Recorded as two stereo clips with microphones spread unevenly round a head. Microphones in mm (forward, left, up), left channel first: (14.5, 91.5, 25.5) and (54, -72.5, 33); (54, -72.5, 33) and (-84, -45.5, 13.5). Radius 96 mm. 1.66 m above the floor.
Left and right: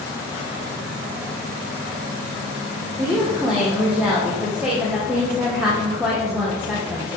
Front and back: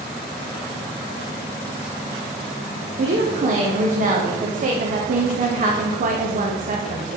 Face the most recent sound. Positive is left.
turn(degrees=-160)